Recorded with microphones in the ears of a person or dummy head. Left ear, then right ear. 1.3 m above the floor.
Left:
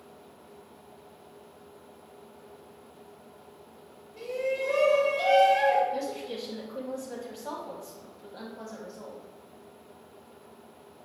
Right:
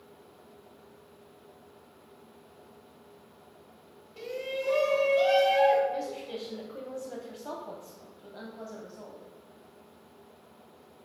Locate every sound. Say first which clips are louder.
4.2 s a shout: left 4 dB; 55° right (ahead or behind), 1.0 m; by 5.8 s 75° right (ahead or behind), 2.0 m
5.9 s a woman speaking: left 2 dB; centre (ahead or behind), 0.6 m